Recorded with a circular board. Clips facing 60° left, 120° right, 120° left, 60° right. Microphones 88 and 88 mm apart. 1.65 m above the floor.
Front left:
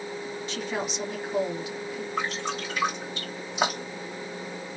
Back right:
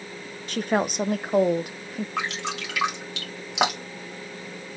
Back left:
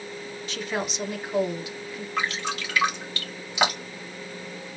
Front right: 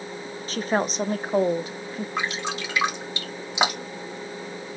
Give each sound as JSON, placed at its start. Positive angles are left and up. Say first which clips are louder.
{"t": 0.5, "sound": "a woman speaking", "louder": "back right 9 dB, front right 6 dB", "azimuth_deg": -105, "distance_m": 0.9}
{"t": 2.2, "sound": "dripping", "louder": "front left 1 dB, back left 1 dB", "azimuth_deg": -130, "distance_m": 2.5}